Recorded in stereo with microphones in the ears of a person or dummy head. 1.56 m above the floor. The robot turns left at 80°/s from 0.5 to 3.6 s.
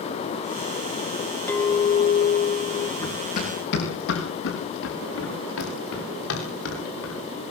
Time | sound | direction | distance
1.5 | a clink | 160° left | 1.0 m
3.0 | running footsteps | 15° left (ahead or behind) | 9.5 m